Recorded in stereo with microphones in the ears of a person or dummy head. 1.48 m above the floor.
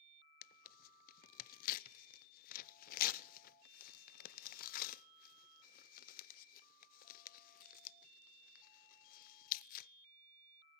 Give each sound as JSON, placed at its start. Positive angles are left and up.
{"t": 0.4, "sound": "tearing paper", "side_deg": 50, "distance_m": 0.7}